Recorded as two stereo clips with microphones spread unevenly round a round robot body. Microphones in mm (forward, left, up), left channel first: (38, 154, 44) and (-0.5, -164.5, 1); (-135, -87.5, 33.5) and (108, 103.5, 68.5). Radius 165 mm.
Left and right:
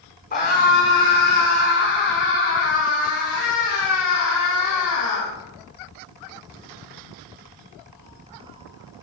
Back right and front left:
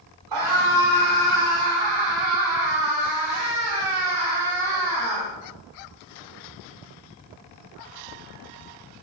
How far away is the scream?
About 8.5 m.